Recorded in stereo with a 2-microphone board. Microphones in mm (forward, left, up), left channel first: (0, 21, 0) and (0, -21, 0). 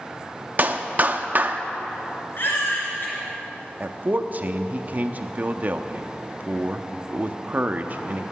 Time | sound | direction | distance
0.6 | a clap | 40° right (ahead or behind) | 0.6 m
2.4 | a baby crying | 55° left (ahead or behind) | 3.5 m
3.8 | a man speaking | 40° right (ahead or behind) | 0.6 m